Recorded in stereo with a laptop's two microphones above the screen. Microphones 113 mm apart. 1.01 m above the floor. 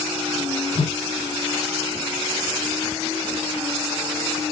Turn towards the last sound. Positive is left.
turn(degrees=65)  # may be behind; listen again after turning